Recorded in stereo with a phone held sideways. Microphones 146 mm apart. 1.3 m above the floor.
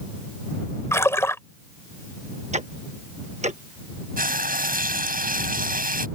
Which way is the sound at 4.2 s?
85° right.